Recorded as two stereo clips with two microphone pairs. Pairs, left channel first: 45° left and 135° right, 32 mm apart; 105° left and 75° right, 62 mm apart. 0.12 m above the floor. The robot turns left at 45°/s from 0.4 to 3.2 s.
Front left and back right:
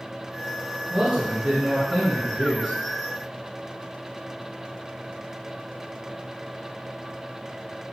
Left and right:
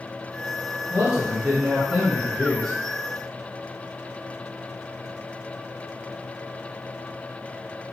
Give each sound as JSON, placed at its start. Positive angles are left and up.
{"t": 0.9, "sound": "a man speaking", "azimuth_deg": -90, "distance_m": 1.4}